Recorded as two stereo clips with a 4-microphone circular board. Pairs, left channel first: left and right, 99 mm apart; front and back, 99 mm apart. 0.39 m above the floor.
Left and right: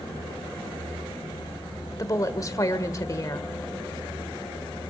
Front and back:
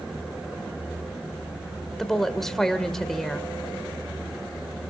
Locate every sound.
2.0 s a woman speaking: 85° left, 1.6 m